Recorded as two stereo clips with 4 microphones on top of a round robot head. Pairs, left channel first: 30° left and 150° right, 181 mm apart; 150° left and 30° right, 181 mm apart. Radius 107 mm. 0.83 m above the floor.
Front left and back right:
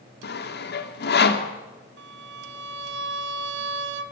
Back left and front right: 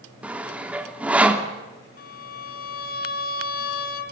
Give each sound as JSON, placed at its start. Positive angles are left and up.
{"t": 0.2, "sound": "sawing", "azimuth_deg": 50, "distance_m": 2.5}
{"t": 2.0, "sound": "a violin", "azimuth_deg": -170, "distance_m": 1.8}